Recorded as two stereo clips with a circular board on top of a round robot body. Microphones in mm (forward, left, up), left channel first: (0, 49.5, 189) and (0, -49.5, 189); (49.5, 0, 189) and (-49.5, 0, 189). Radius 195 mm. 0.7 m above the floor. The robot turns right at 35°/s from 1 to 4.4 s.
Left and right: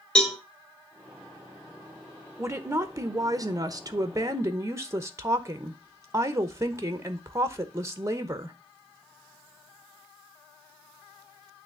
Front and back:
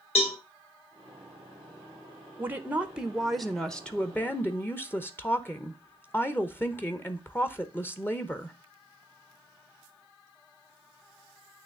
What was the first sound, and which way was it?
A cowbell, 10° left.